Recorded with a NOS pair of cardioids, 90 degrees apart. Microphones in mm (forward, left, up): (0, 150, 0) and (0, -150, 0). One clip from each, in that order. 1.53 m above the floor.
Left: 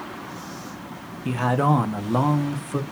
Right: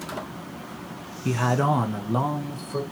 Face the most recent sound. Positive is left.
turn(degrees=30)